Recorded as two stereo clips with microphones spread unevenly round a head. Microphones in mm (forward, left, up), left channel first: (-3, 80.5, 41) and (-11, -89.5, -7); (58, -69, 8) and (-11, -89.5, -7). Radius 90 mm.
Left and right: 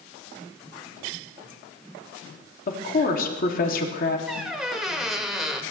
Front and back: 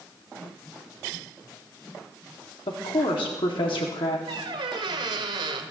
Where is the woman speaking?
40° left, 2 m.